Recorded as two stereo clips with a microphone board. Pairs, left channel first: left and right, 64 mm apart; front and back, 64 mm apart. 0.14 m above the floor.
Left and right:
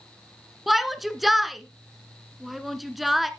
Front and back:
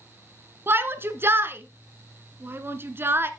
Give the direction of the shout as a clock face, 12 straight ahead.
6 o'clock.